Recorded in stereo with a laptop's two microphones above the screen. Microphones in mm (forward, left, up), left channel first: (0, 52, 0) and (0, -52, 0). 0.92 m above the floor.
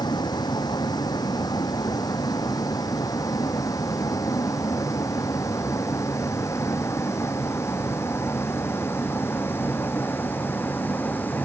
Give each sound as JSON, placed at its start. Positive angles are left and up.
{"t": 0.0, "sound": "a vehicle", "side_deg": 40}